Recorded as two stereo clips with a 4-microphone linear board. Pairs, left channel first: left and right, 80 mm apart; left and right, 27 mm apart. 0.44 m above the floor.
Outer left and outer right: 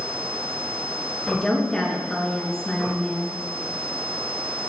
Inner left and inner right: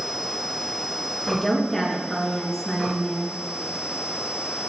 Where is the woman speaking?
10° left (ahead or behind), 6 m.